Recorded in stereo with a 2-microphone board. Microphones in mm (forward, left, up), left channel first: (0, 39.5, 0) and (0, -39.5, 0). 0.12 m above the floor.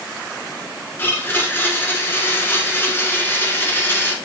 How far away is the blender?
About 1.4 m.